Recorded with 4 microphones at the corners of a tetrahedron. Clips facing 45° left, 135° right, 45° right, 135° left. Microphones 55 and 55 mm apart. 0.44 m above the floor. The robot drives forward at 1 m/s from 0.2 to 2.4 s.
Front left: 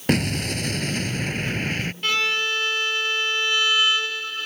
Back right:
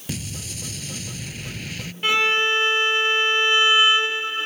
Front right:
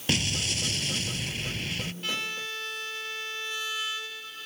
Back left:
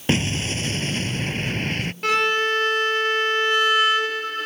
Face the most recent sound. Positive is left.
turn(degrees=160)